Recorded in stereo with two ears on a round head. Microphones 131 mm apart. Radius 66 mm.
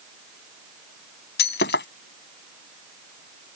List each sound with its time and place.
1.4 s breaking glass: 80° left